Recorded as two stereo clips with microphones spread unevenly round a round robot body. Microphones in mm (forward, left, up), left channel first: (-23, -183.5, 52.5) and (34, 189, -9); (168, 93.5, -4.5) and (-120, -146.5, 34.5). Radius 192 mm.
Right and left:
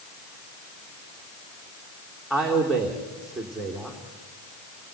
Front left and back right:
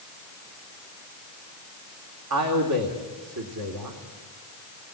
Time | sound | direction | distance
2.3 | a man speaking | 170° left | 2.5 m